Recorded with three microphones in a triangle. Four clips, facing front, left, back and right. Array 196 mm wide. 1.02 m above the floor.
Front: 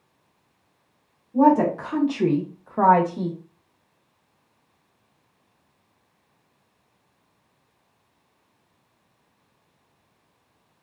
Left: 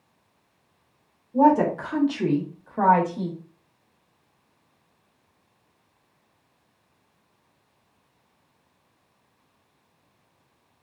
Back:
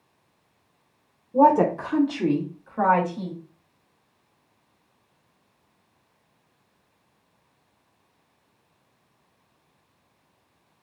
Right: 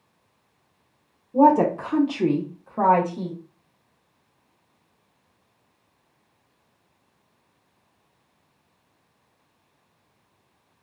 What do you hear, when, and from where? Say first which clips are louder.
1.3 s a woman speaking: right 2 dB, even; 135° right, 0.7 m; by 3.4 s 5° right, 1.0 m